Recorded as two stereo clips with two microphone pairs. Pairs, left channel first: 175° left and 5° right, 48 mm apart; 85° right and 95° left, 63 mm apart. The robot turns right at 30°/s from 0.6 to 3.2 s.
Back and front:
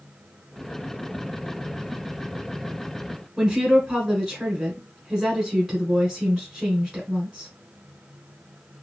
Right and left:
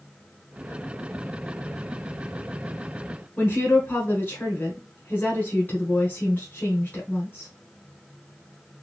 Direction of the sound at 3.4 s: 90° right.